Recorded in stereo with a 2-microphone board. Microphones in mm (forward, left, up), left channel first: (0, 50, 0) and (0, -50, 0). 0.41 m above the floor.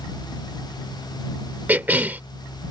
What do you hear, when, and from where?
1.7 s a cough: 15° right (ahead or behind)